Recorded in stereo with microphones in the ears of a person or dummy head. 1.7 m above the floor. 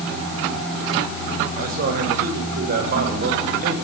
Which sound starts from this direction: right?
A man speaking, at 1.5 s.